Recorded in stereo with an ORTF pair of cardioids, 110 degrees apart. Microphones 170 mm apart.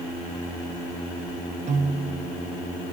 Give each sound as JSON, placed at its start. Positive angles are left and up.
{"t": 1.7, "sound": "a piano", "azimuth_deg": -45, "distance_m": 1.5}